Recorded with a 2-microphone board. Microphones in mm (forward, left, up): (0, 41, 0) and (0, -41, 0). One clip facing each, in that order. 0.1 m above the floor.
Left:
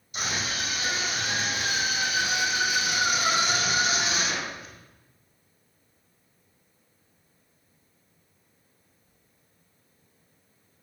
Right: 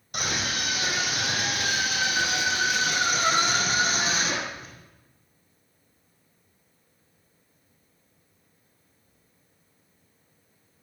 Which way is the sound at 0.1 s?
60° right (ahead or behind).